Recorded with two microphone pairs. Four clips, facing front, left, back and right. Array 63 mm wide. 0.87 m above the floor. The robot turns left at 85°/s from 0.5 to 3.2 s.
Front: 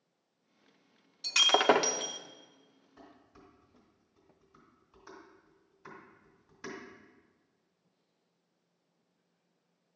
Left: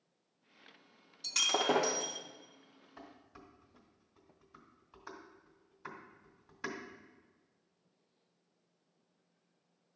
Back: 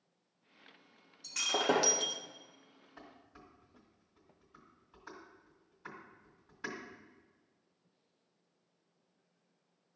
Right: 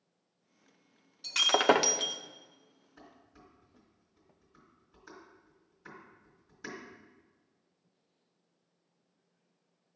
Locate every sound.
1.2 s breaking glass: 15° right, 0.5 m; by 2.2 s 95° right, 0.5 m
3.0 s dishes clattering: 120° left, 2 m; by 6.8 s 100° left, 2 m